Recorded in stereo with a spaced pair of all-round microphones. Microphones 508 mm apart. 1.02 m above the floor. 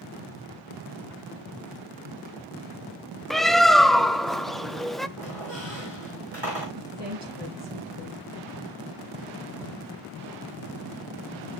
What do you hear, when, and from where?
3.3 s a bird: centre (ahead or behind), 0.7 m
5.2 s a squeak: 55° right (ahead or behind), 7.5 m
6.8 s a woman speaking: 55° right (ahead or behind), 9.5 m